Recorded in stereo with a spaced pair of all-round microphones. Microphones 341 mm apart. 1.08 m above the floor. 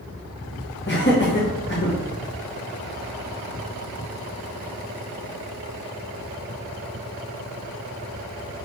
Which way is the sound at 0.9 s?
35° left (ahead or behind).